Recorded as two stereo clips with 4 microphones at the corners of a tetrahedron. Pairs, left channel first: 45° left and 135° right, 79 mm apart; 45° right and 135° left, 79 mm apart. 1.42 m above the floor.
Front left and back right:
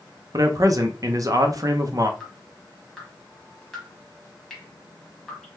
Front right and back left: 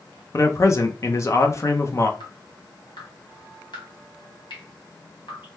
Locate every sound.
0.3 s a man speaking: 90° right, 0.6 m
2.2 s dripping: 40° right, 1.3 m